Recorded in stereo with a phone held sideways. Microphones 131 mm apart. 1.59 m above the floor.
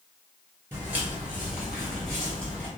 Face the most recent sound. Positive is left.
turn(degrees=10)  # may be behind; listen again after turning